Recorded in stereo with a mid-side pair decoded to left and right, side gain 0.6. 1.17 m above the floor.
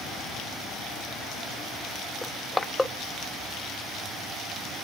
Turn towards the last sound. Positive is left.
turn(degrees=15)